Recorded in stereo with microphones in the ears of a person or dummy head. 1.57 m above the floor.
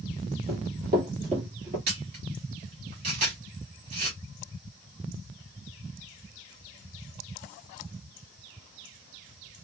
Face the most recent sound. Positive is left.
turn(degrees=-30)  # may be behind; listen again after turning